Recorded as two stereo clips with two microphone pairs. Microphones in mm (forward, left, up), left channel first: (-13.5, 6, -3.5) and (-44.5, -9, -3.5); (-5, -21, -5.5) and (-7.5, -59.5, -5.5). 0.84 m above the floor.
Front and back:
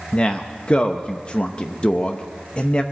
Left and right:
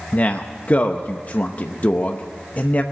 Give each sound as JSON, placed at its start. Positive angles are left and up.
{"t": 0.1, "sound": "a man speaking", "azimuth_deg": 65, "distance_m": 0.7}